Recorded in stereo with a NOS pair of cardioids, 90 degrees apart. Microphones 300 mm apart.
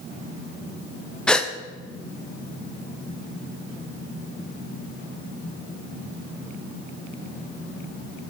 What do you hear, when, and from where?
1.3 s a gasp: 5° left, 1.0 m